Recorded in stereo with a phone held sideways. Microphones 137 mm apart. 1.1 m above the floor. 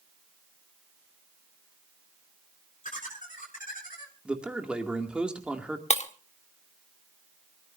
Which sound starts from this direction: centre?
A man speaking, at 4.2 s.